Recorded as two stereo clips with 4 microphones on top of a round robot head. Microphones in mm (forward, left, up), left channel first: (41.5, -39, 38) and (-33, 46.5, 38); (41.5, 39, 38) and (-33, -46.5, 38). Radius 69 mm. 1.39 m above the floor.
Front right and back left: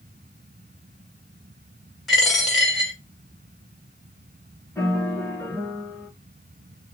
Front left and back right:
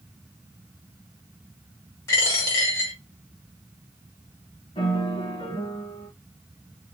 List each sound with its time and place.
2.1 s a dropped coin: 45° left, 1.2 m
4.8 s a piano: 25° left, 1.4 m